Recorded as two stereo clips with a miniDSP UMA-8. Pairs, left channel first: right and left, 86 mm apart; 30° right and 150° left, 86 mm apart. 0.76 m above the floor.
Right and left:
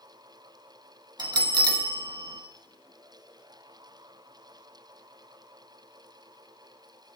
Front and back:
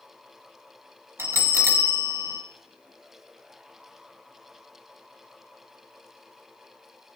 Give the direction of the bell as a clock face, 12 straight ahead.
9 o'clock.